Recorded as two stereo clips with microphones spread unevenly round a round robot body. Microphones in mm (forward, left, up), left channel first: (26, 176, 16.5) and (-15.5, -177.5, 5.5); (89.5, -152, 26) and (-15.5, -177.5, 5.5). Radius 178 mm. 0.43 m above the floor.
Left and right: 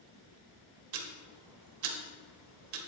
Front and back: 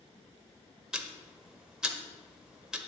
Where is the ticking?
90° right, 1.5 m.